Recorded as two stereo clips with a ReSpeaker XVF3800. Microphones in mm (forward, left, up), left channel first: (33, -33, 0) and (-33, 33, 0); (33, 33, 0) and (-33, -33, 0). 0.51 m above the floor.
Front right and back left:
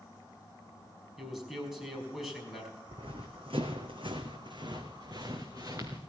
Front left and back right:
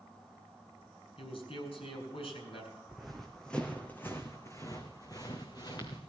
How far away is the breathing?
No breathing in this recording.